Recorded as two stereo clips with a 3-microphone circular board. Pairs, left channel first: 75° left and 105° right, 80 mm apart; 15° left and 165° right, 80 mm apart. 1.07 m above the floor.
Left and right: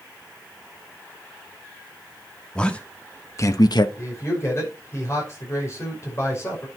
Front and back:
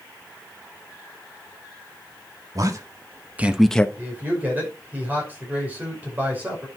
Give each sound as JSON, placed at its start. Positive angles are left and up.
{"t": 2.5, "sound": "a man speaking", "azimuth_deg": 150, "distance_m": 1.9}
{"t": 4.0, "sound": "a man speaking", "azimuth_deg": 125, "distance_m": 5.5}